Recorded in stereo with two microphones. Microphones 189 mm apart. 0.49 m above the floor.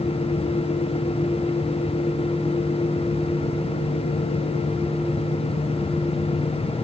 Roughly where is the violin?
No violin in this recording.